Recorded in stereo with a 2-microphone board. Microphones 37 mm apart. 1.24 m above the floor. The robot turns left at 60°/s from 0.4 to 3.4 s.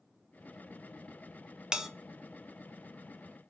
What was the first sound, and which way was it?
A bell, 25° right (ahead or behind).